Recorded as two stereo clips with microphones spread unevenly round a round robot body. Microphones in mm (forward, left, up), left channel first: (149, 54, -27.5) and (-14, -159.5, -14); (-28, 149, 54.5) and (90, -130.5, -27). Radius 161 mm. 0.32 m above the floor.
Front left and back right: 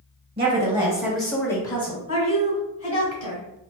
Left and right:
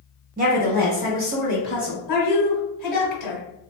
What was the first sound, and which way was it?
A woman speaking, 85° right.